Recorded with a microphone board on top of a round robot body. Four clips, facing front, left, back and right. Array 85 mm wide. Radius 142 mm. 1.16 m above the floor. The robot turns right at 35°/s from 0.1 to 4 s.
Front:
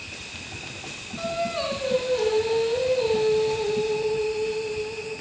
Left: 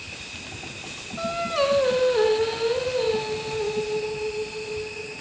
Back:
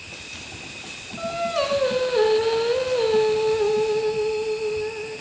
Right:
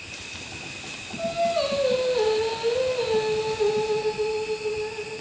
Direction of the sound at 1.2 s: 105° left.